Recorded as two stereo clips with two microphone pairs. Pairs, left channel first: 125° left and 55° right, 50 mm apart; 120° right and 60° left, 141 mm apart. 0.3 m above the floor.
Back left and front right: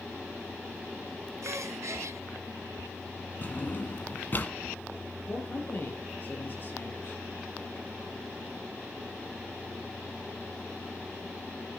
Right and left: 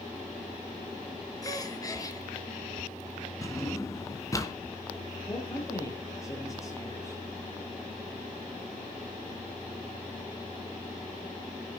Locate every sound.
1.4 s a gasp: 55° right, 3.5 m
3.4 s a drawer: 175° left, 2.0 m
5.3 s a man speaking: 175° left, 7.5 m